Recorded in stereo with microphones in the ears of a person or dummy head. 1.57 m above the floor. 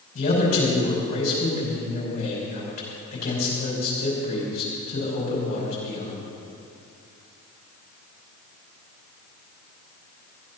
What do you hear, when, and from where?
0.1 s a man speaking: 50° left (ahead or behind), 6 m